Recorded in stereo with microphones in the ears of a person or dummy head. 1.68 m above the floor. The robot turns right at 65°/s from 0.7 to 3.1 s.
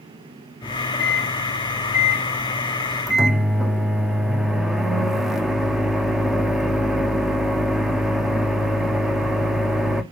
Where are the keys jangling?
I don't hear keys jangling.